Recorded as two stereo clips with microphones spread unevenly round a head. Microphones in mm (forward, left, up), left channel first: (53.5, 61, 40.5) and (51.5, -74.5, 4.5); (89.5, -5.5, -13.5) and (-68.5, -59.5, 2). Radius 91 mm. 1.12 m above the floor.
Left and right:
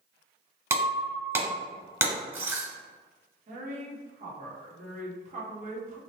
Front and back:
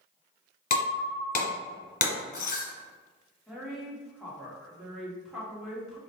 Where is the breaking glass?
15° right, 1.6 m.